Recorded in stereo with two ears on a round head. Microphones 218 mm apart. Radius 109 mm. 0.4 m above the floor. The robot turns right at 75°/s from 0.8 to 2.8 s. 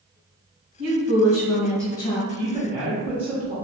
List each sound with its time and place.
0.8 s a woman speaking: 70° right, 1.9 m; by 2.2 s 35° left, 1.9 m
2.3 s a woman speaking: 20° right (ahead or behind), 1.0 m; by 3.5 s 5° right (ahead or behind), 1.0 m